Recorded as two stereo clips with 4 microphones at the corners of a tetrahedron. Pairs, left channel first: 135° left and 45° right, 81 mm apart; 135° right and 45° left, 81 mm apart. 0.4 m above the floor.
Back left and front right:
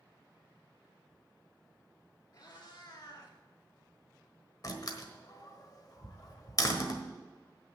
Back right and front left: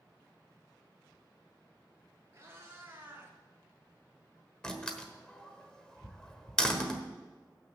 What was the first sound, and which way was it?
A cat meowing, 105° left.